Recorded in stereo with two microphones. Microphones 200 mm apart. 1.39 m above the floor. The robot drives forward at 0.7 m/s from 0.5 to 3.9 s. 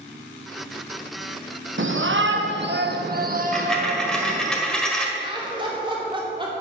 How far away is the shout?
About 1.2 m.